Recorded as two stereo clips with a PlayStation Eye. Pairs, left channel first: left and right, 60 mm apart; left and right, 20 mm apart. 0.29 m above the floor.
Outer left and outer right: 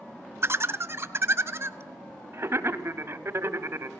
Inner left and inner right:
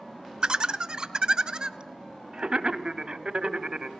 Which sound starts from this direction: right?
Laughter, at 0.4 s.